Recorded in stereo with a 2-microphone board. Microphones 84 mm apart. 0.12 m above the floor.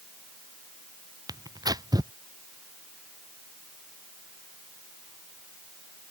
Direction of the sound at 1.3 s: 50° right (ahead or behind).